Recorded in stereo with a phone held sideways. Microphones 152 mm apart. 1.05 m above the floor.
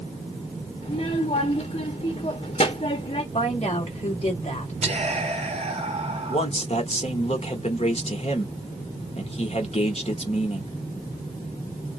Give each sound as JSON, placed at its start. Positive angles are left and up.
{"t": 0.8, "sound": "a child speaking", "side_deg": 50, "distance_m": 0.6}
{"t": 3.3, "sound": "a woman speaking", "side_deg": 45, "distance_m": 2.0}
{"t": 4.8, "sound": "whispering", "side_deg": -45, "distance_m": 1.2}
{"t": 6.3, "sound": "a man speaking", "side_deg": 45, "distance_m": 1.1}